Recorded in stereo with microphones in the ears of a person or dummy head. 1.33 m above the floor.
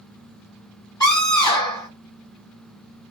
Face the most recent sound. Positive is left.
turn(degrees=15)  # may be behind; listen again after turning